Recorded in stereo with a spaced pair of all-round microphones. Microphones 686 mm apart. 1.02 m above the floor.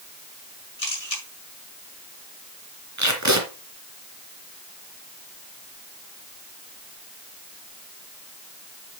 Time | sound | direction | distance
0.8 | a camera shutter | 55° left (ahead or behind) | 5.5 m
3.0 | tape being pulled | 25° right (ahead or behind) | 2.5 m